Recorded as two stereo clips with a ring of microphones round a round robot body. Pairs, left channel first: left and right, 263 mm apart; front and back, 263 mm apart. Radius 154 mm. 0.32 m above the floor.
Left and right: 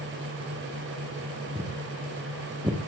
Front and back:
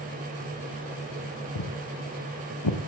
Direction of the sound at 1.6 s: 10° right.